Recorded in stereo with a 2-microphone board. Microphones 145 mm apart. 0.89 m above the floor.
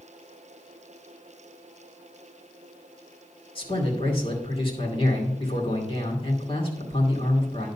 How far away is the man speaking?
About 2.5 m.